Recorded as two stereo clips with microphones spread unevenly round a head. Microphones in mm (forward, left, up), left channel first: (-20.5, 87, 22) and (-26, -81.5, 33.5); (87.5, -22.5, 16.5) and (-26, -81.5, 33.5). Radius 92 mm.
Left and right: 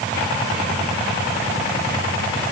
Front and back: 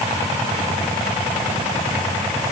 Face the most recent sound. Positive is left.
No sound to turn to.